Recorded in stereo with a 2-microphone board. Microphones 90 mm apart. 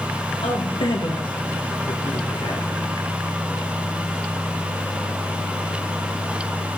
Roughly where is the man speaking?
Left.